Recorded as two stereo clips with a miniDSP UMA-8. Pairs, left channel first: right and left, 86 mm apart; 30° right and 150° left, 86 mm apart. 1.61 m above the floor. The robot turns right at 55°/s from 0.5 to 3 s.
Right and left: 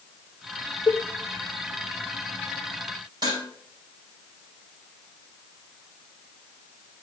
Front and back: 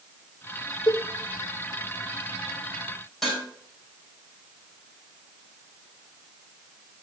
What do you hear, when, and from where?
0.9 s a cowbell: 70° right, 0.5 m; by 1.0 s 60° right, 0.5 m
3.2 s dishes clattering: 60° left, 5 m